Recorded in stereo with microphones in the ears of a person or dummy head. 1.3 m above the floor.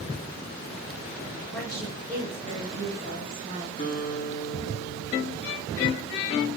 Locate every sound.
1.5 s a woman speaking: centre (ahead or behind), 1.5 m; by 3.7 s 40° right (ahead or behind), 2.5 m
3.8 s a guitar: 45° left (ahead or behind), 1.2 m